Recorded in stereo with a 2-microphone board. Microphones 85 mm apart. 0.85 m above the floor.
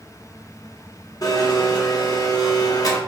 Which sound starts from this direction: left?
A blender, at 1.2 s.